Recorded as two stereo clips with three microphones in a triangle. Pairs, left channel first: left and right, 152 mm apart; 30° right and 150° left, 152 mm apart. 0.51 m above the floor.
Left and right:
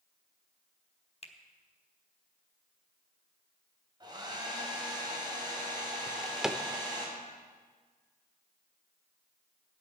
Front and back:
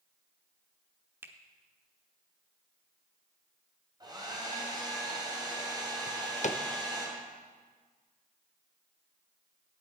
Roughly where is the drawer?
Ahead.